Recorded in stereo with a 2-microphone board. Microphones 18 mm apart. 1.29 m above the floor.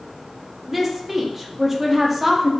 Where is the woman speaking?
15° right (ahead or behind), 0.5 m.